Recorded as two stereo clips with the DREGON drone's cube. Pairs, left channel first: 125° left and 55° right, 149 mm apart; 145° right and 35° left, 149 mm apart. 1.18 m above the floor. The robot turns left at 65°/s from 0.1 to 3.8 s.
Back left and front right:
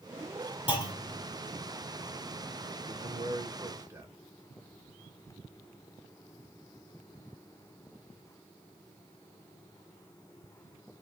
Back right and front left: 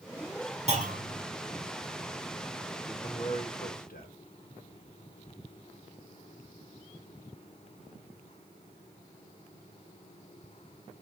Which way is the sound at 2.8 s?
65° right.